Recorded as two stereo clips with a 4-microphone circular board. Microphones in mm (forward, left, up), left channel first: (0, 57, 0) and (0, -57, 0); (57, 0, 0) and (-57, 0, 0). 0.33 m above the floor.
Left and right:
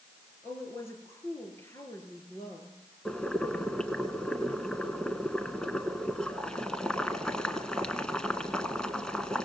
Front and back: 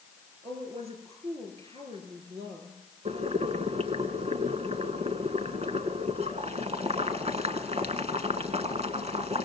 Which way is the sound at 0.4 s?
155° left.